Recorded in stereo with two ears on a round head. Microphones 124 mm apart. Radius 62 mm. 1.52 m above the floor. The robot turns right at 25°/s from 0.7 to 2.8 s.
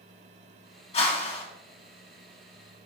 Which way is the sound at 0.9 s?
50° left (ahead or behind).